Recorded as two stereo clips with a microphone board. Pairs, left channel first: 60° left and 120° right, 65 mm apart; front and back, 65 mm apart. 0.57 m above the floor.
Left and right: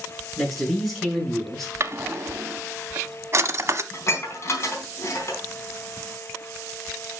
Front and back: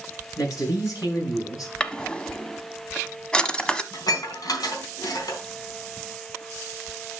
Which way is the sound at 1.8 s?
80° right.